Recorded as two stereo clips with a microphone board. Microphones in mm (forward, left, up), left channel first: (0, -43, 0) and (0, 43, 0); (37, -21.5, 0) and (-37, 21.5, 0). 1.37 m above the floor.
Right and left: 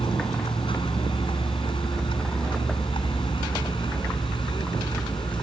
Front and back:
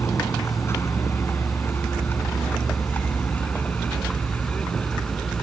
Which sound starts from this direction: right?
A vehicle, at 0.0 s.